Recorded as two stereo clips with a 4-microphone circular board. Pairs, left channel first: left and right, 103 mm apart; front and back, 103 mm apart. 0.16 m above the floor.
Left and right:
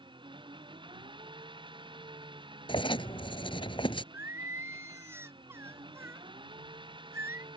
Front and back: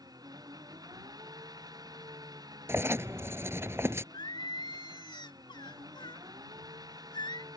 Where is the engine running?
130° right.